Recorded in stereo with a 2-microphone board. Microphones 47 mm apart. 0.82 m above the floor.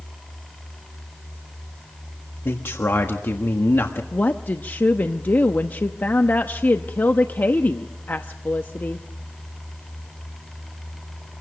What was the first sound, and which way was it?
A man speaking, 55° left (ahead or behind).